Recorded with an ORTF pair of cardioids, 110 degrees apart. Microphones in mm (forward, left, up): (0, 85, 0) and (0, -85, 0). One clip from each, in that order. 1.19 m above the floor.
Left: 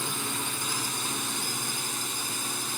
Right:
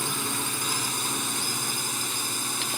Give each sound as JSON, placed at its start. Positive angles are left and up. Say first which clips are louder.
{"t": 0.0, "sound": "a drone", "louder": "right 2 dB", "azimuth_deg": -20}